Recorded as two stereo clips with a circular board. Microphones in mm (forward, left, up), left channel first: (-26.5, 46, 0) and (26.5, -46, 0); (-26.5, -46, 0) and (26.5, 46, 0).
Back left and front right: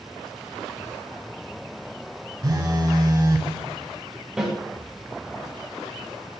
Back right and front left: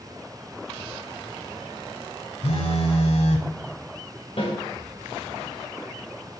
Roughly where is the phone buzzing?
Right.